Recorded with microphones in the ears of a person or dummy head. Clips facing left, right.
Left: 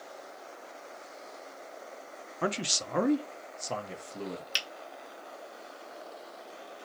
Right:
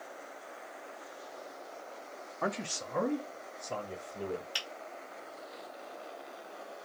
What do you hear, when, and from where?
2.4 s a man speaking: 25° left (ahead or behind), 0.6 m; by 4.4 s 75° left (ahead or behind), 1.2 m
4.5 s a finger snap: 70° left (ahead or behind), 1.3 m